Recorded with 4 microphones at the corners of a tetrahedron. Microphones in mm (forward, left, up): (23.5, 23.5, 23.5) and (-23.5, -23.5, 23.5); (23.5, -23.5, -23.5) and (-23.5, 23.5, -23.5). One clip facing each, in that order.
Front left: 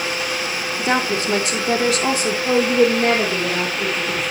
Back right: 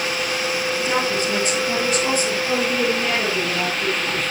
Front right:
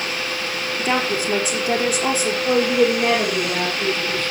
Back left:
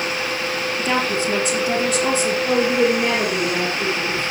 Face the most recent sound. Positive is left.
turn(degrees=55)